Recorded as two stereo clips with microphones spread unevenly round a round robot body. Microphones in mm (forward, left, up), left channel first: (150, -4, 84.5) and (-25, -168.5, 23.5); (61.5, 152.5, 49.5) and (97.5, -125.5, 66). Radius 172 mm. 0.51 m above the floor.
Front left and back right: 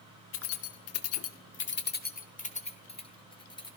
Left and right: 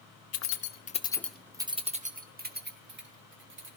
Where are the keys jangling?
85° left, 1.1 m; by 3.7 s 35° right, 3 m.